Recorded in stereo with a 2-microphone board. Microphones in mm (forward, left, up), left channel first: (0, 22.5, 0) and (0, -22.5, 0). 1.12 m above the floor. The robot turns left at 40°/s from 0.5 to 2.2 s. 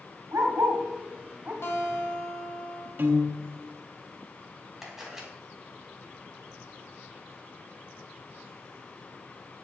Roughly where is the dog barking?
Right.